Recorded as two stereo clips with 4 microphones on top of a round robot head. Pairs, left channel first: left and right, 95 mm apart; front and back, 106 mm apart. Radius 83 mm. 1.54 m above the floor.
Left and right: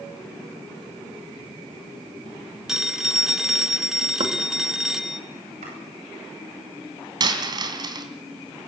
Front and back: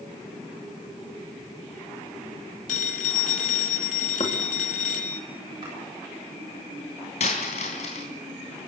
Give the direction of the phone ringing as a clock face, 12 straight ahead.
12 o'clock.